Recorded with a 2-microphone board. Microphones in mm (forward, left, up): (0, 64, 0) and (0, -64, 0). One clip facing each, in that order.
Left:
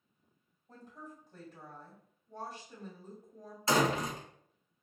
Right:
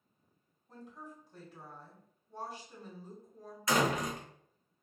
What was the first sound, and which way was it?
A woman speaking, 45° left (ahead or behind).